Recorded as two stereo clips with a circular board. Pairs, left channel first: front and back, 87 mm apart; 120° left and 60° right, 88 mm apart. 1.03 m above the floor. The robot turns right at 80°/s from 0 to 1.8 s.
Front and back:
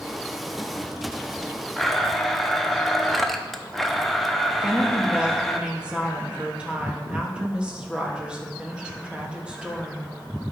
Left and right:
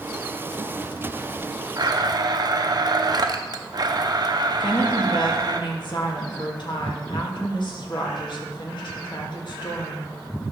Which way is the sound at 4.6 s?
105° left.